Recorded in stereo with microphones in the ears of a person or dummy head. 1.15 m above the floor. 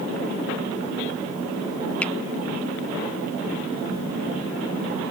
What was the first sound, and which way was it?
A finger snap, centre (ahead or behind).